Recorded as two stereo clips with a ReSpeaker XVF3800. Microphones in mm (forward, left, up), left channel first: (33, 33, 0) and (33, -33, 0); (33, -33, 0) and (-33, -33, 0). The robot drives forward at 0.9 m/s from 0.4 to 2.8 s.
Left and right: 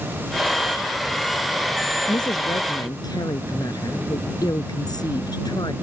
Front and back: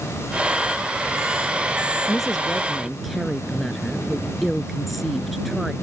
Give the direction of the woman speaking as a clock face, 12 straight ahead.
9 o'clock.